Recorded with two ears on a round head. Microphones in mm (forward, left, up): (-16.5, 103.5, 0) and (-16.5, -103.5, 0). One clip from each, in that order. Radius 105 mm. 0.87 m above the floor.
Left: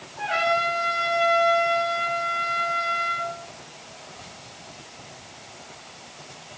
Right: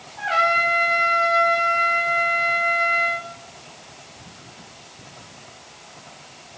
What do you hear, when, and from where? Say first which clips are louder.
0.2 s a trumpet: right 4 dB; 70° right (ahead or behind), 6.5 m